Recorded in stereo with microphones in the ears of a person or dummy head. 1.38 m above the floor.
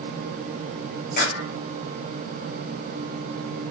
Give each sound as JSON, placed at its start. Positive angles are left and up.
{"t": 1.2, "sound": "a clap", "side_deg": 50, "distance_m": 6.0}